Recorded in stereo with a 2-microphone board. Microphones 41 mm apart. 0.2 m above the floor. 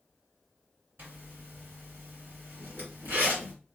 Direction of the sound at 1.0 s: 50° right (ahead or behind).